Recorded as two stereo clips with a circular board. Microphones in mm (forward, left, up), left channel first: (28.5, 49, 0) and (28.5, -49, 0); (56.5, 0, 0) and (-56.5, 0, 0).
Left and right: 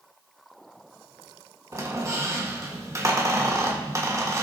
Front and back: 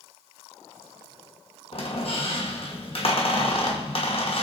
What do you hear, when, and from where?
1.7 s a squeak: 30° right, 1.3 m